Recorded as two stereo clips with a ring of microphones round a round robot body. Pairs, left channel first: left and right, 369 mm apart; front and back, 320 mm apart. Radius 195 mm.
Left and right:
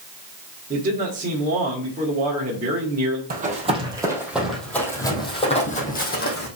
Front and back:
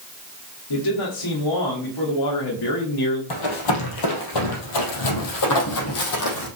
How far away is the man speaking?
About 1.9 m.